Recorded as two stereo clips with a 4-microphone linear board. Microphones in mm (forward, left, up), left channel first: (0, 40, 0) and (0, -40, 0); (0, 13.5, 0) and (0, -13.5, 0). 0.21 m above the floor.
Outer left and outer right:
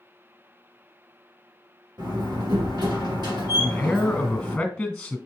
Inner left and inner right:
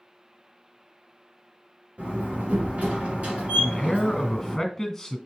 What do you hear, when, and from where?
2.0 s a door slam: 65° right (ahead or behind), 3 m
3.6 s a man speaking: 15° left (ahead or behind), 1.7 m